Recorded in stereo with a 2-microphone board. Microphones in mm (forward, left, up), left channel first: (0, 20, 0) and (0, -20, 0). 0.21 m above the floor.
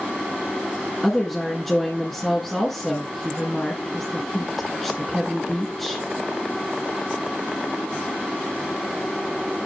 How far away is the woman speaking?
About 2 m.